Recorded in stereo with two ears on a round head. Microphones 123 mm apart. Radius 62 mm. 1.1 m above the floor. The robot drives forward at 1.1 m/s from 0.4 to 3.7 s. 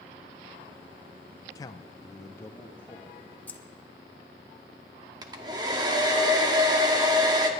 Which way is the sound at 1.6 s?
25° left (ahead or behind).